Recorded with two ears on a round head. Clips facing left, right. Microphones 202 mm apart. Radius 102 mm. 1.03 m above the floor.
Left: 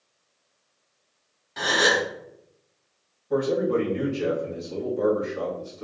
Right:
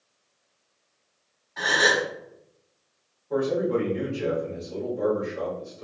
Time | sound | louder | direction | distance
1.6 | a gasp | left 1 dB | 45° left (ahead or behind) | 1.1 m
3.3 | a man speaking | left 1 dB | 15° left (ahead or behind) | 1.9 m